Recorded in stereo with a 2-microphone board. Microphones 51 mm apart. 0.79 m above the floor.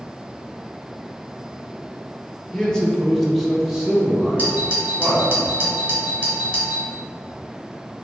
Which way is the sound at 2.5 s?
10° left (ahead or behind).